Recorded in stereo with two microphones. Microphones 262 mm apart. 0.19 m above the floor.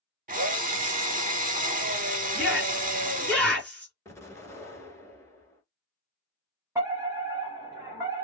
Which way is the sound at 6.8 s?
10° right (ahead or behind).